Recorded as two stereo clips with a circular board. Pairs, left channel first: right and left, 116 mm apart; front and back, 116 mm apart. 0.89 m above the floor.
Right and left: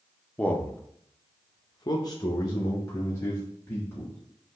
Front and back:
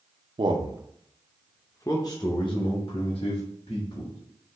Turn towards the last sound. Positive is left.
turn(degrees=-30)